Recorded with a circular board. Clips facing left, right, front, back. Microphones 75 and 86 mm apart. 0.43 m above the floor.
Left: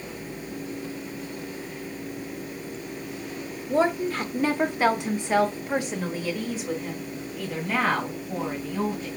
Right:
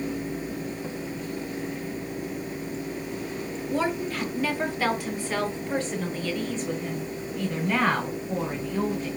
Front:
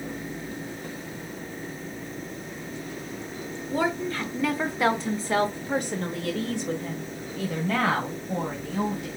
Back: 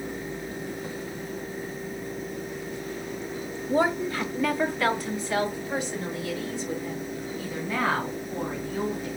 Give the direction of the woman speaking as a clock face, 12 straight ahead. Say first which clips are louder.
Left 5 dB, back 3 dB; 8 o'clock.